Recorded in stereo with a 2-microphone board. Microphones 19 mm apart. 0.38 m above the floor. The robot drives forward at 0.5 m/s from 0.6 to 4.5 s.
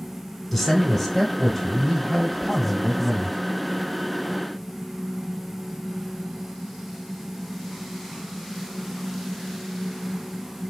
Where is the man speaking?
10° left (ahead or behind), 0.9 m; by 3.4 s 5° left (ahead or behind), 2 m.